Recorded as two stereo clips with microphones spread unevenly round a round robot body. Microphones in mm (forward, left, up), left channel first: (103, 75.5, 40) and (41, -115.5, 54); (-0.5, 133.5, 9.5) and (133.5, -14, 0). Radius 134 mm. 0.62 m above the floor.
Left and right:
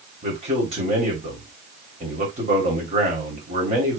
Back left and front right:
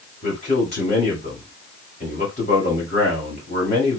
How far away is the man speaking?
About 2.5 m.